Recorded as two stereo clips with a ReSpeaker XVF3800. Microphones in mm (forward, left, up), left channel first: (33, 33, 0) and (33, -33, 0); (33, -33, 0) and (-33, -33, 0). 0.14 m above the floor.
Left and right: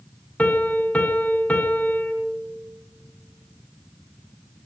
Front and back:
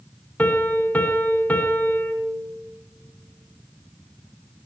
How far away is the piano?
About 1.5 m.